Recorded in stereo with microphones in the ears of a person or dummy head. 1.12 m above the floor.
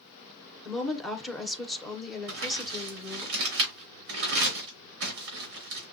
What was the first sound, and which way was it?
A woman speaking, 5° left (ahead or behind).